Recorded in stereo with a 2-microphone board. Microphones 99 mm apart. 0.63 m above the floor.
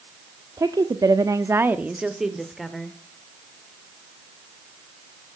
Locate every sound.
0.6 s a woman speaking: 35° right (ahead or behind), 1.0 m; by 3.0 s 5° left (ahead or behind), 1.9 m